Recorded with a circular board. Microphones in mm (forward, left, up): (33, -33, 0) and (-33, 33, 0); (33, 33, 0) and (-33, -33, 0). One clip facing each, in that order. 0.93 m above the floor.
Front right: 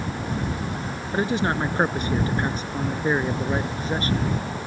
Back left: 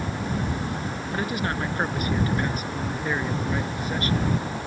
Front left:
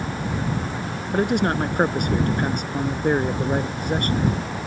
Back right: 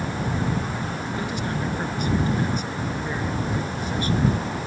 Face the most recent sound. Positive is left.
turn(degrees=15)